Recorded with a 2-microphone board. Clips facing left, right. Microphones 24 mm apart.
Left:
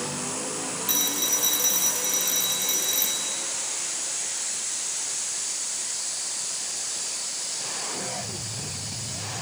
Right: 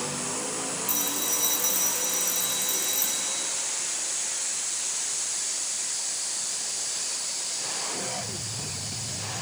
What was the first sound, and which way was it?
A phone ringing, 40° left (ahead or behind).